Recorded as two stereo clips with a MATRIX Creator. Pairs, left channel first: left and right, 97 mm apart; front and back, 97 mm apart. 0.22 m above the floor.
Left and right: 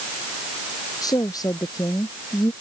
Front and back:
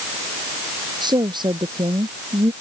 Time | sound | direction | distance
1.0 | a woman speaking | 140° left | ?